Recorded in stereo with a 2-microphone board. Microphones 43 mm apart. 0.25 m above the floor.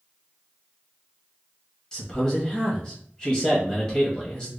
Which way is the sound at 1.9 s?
20° left (ahead or behind).